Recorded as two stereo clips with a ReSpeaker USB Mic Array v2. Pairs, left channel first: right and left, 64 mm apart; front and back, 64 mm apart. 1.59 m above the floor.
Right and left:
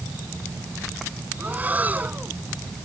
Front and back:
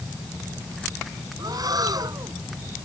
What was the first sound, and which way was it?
Breathing, 155° left.